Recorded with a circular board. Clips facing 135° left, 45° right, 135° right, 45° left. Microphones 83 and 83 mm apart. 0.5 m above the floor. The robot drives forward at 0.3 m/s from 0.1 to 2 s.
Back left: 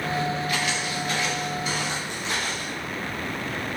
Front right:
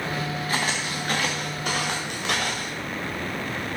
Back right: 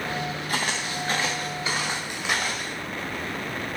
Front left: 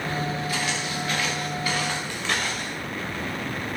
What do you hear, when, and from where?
0.5 s footsteps: 95° right, 2 m; by 2.7 s 50° right, 3.5 m